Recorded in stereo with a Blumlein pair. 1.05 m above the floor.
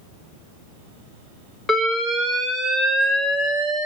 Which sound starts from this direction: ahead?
An alarm, at 1.7 s.